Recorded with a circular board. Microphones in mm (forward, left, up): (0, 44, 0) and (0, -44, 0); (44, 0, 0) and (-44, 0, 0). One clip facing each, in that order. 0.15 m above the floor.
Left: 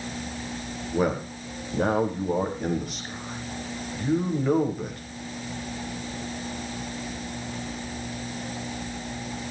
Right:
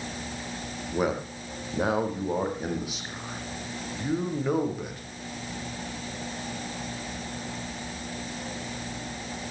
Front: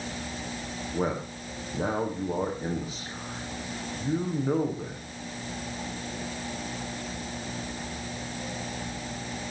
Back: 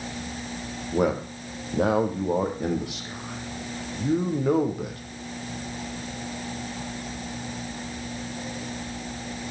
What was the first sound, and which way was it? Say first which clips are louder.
A man speaking: left 2 dB, back 6 dB; 175° right.